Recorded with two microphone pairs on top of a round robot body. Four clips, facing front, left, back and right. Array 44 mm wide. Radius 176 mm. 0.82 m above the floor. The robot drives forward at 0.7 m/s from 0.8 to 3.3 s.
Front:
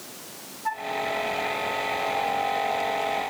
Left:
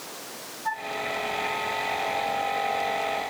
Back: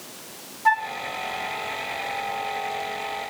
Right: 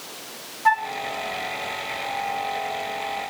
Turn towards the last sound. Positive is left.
turn(degrees=-150)